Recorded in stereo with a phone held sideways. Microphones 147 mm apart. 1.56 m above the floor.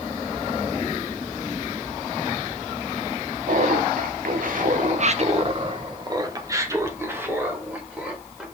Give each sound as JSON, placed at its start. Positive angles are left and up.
{"t": 3.5, "sound": "laughter", "side_deg": -60, "distance_m": 1.0}